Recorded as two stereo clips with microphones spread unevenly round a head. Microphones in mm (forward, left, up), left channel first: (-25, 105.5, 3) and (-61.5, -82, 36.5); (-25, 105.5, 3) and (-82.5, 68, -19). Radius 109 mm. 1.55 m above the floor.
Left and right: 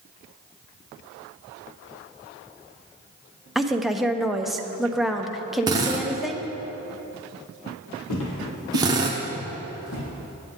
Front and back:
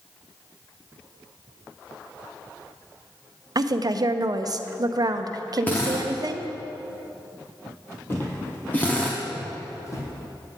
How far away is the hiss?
No hiss in this recording.